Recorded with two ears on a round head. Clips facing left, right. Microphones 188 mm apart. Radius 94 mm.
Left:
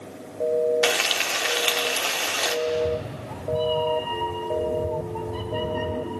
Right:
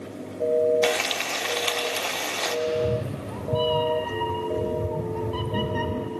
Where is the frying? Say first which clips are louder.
Right 1 dB; 5° left (ahead or behind), 1.0 m.